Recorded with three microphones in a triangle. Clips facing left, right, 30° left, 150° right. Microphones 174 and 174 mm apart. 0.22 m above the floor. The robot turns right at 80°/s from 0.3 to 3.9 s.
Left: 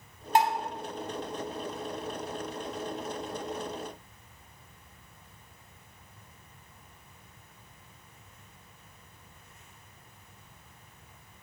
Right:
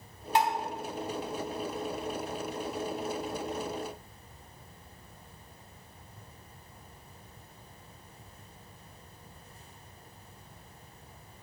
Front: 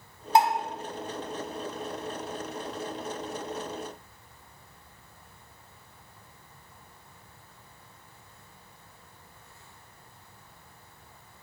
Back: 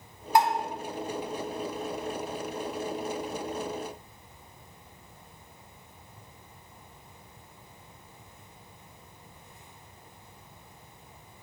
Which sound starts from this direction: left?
Dishes clattering, at 0.3 s.